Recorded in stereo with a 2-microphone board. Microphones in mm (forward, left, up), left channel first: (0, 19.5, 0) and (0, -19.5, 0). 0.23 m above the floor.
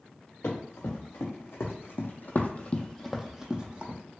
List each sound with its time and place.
0.4 s running footsteps: 80° left, 1.7 m; by 4.0 s 30° right (ahead or behind), 0.9 m